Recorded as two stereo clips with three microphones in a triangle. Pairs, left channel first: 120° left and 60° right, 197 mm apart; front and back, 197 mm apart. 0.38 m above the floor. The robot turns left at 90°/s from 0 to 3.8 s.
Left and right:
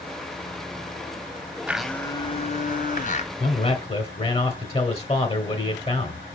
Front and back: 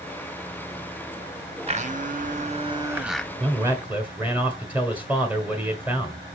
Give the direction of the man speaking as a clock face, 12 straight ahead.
7 o'clock.